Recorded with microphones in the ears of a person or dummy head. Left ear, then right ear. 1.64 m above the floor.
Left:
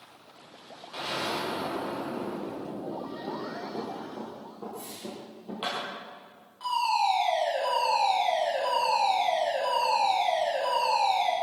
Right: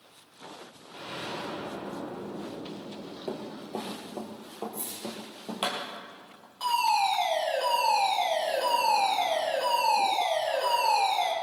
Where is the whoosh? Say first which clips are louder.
Right 1 dB; 25° right (ahead or behind), 4.5 m.